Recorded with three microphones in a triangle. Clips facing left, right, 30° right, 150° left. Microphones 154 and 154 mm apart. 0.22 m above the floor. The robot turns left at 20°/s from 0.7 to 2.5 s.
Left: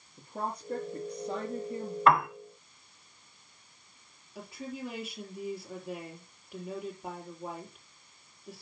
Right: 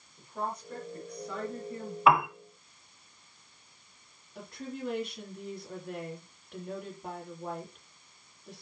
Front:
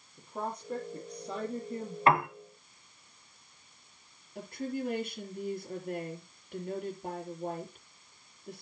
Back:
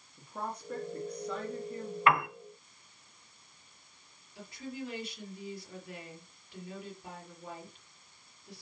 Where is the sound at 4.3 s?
5° left, 4.5 m.